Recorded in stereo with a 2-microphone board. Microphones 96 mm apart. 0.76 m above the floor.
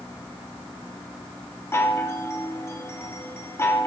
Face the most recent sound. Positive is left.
turn(degrees=25)  # may be behind; listen again after turning